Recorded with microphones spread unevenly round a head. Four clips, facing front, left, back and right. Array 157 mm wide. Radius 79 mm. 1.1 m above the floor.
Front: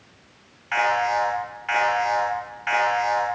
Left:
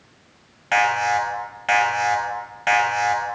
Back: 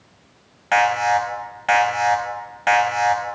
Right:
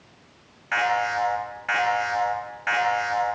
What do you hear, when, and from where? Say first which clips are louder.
0.7 s an alarm: left 4 dB, back 4 dB; 160° left, 7.5 m